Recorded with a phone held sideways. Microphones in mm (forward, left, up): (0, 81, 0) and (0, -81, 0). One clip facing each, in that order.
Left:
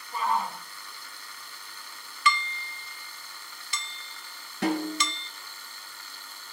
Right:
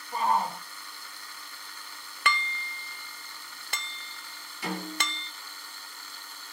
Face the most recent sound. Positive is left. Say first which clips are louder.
# left 7 dB
turn(degrees=75)  # may be behind; listen again after turning